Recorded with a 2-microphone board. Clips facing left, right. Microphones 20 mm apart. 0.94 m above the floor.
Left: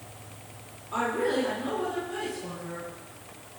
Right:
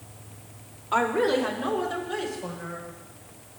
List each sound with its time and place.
0.9 s a woman speaking: 60° right (ahead or behind), 3 m